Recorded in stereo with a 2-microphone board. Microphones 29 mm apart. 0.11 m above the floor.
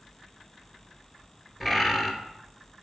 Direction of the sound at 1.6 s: 5° right (ahead or behind).